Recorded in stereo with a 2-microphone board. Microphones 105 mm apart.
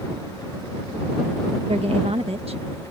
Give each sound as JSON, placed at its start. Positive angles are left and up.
{"t": 1.7, "sound": "a woman speaking", "side_deg": -70}